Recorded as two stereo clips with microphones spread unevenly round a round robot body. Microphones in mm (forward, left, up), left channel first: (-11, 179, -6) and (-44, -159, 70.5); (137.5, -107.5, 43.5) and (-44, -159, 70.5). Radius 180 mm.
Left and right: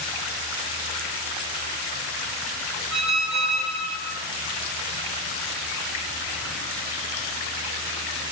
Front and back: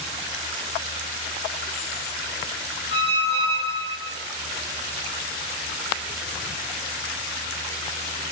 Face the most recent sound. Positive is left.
turn(degrees=-110)